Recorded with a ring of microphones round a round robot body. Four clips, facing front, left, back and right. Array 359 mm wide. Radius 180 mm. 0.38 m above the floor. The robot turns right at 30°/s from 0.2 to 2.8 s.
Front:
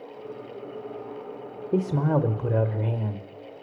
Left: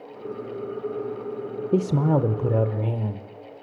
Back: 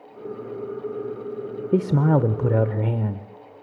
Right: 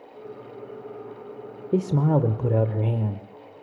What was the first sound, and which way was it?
A man speaking, 160° left.